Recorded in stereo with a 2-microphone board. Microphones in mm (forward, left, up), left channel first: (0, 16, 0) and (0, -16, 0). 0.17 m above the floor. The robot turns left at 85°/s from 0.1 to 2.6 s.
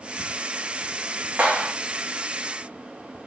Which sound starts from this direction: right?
A clap, at 1.4 s.